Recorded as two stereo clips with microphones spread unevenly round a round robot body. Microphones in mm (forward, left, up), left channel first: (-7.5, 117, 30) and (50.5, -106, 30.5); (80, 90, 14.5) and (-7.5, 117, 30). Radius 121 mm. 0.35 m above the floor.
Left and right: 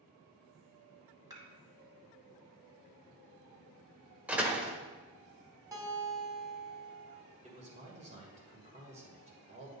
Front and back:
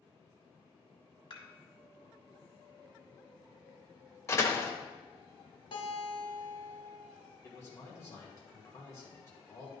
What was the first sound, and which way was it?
Dishes clattering, straight ahead.